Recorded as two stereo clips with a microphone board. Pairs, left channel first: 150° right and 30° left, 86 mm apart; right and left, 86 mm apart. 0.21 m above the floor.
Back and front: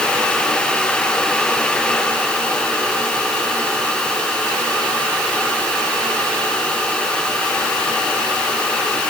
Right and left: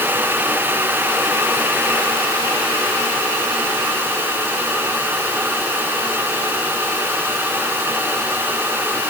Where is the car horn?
No car horn in this recording.